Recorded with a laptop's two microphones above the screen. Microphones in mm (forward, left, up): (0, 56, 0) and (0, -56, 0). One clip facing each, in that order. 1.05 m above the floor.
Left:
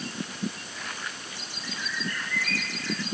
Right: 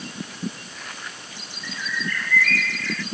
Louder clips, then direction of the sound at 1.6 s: Right 4 dB; 25° left (ahead or behind).